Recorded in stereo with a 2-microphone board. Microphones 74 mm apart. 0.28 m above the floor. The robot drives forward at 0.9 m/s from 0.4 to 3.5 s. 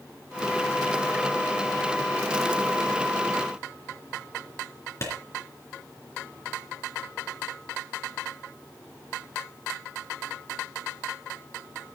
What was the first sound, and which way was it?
A clap, 40° left (ahead or behind).